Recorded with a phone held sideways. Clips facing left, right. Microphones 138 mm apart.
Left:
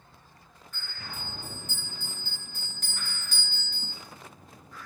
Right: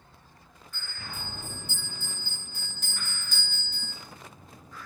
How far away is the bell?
About 3.5 m.